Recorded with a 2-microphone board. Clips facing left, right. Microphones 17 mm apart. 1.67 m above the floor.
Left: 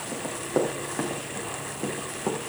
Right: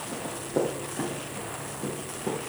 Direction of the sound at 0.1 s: 70° left (ahead or behind).